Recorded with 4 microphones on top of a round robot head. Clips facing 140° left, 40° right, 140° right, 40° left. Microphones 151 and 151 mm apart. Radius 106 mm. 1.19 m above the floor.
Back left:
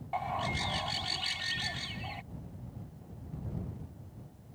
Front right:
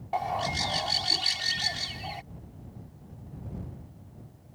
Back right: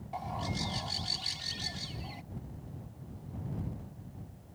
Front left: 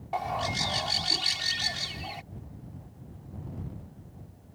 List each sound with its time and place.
0.1 s a bird: 10° left